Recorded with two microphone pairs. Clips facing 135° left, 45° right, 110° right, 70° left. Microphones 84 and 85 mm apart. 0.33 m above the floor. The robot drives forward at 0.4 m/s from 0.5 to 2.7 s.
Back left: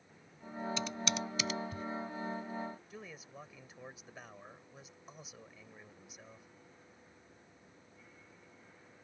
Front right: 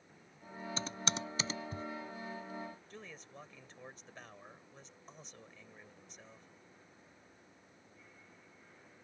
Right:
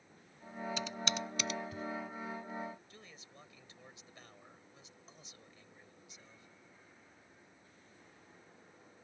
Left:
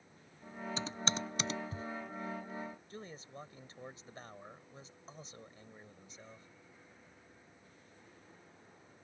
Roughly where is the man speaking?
Ahead left.